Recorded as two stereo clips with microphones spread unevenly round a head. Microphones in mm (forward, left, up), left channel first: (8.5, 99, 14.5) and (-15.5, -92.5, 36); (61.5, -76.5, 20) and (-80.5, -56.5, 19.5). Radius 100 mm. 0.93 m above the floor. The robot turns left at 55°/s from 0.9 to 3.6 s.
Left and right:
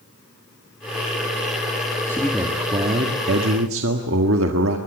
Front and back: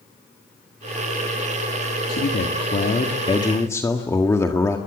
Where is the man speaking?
5° left, 1.8 m; by 4.8 s 80° right, 1.8 m.